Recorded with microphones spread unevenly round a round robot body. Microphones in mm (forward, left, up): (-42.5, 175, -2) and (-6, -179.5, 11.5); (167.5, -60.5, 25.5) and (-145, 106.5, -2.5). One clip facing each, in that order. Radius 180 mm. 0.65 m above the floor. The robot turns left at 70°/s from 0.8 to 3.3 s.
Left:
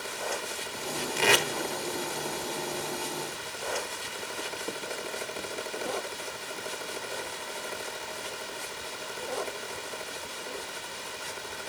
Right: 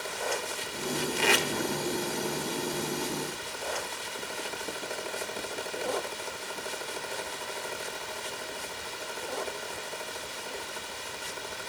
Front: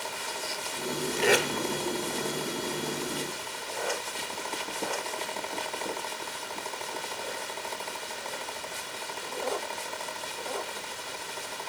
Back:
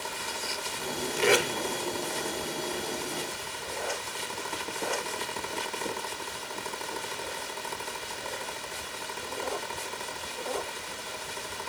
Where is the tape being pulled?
75° left, 0.5 m; by 1.5 s 55° left, 0.5 m.